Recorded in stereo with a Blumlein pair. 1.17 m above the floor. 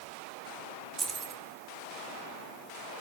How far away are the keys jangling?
About 2.5 m.